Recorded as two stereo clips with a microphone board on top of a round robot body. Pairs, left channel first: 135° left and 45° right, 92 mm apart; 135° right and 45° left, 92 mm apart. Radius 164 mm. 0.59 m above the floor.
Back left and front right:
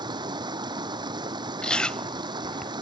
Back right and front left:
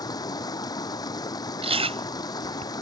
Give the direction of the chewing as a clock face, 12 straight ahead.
10 o'clock.